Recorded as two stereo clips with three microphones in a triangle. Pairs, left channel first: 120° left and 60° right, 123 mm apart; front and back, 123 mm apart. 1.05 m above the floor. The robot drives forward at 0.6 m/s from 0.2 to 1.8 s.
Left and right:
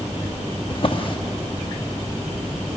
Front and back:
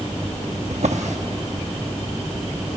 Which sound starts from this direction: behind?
A drawer, at 0.7 s.